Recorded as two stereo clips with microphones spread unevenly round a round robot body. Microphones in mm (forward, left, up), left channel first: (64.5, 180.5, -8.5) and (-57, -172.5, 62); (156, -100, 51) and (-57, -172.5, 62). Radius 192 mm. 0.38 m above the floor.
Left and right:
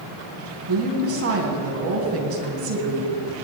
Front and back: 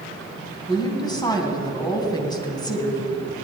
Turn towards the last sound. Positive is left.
turn(degrees=-55)